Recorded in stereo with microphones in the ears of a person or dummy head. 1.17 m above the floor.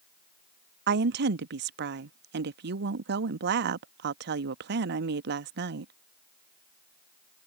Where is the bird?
I don't hear a bird.